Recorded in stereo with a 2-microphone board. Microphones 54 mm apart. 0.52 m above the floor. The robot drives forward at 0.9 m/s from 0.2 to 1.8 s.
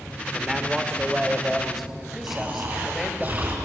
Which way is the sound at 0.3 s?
5° right (ahead or behind).